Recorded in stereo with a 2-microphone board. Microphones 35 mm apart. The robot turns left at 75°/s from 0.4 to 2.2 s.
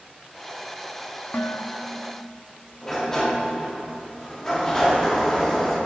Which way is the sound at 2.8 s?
15° left (ahead or behind).